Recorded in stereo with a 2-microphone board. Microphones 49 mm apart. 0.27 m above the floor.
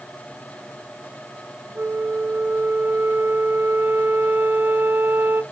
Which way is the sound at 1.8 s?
45° right (ahead or behind).